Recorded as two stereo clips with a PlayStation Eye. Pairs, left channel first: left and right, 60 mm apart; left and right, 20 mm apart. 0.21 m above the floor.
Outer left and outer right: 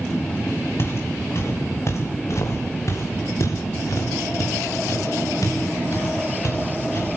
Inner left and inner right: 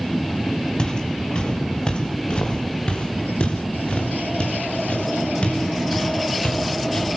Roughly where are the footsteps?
Left.